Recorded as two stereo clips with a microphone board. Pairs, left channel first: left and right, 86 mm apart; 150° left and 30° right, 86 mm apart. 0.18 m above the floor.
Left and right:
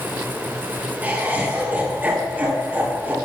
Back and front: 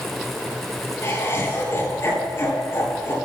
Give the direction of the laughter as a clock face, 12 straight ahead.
5 o'clock.